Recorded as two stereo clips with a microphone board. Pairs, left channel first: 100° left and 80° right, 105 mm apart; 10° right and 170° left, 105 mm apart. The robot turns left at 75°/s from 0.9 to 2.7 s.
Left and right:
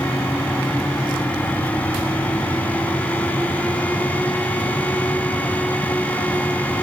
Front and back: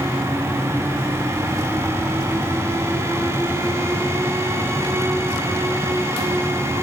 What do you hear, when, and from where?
Only background noise.